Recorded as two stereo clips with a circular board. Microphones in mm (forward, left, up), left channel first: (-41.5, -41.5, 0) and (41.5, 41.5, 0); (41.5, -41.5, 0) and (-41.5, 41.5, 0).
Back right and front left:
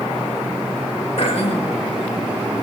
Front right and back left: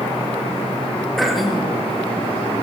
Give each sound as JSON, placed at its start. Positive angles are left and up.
{"t": 1.2, "sound": "throat clearing", "azimuth_deg": -135, "distance_m": 3.0}